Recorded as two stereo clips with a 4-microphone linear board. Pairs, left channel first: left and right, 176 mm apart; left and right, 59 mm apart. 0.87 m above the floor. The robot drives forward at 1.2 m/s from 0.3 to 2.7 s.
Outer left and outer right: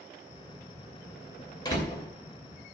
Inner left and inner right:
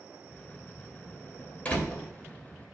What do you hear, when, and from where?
1.6 s a door slam: 25° left (ahead or behind), 2.5 m; by 2.0 s 20° left (ahead or behind), 3 m